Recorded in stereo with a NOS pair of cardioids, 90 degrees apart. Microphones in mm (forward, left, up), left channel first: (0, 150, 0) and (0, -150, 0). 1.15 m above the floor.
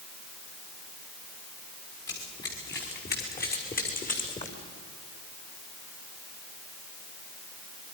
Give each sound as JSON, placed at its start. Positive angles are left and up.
{"t": 2.1, "sound": "running footsteps", "azimuth_deg": 35, "distance_m": 7.0}